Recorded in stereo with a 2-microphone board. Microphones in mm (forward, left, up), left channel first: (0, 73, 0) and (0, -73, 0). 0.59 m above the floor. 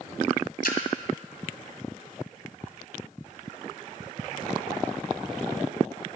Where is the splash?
85° left, 1.8 m.